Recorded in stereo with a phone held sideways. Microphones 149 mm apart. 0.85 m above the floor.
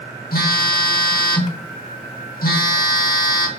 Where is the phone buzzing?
80° left, 1.3 m.